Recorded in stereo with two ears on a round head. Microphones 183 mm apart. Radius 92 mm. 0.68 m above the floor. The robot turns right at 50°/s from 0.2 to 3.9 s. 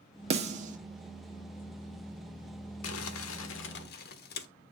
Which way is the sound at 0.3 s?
30° right (ahead or behind).